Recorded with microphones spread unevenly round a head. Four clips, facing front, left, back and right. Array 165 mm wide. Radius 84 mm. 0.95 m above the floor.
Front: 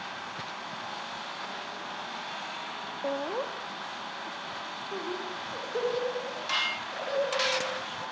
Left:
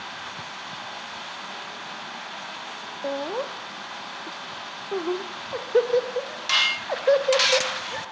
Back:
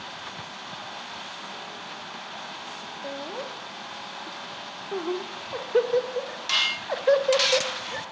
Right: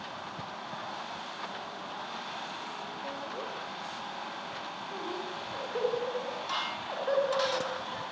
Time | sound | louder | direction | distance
3.0 | laughter | left 13 dB, front 4 dB | 60° left | 2 m